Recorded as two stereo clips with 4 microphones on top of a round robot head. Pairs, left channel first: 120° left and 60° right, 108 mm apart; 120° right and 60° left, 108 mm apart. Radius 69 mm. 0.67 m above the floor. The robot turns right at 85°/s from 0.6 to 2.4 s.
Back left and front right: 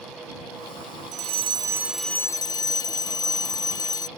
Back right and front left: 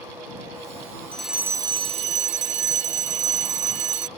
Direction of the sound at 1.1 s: 45° right.